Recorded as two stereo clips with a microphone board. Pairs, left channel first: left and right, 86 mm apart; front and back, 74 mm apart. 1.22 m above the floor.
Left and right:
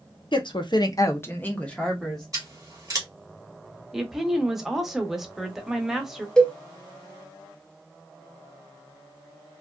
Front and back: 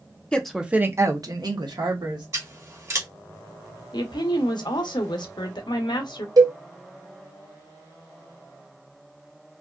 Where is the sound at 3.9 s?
5° right, 0.7 m.